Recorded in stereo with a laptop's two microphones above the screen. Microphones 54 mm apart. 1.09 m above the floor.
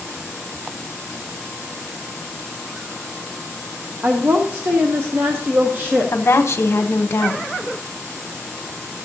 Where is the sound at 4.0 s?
40° right (ahead or behind), 0.6 m.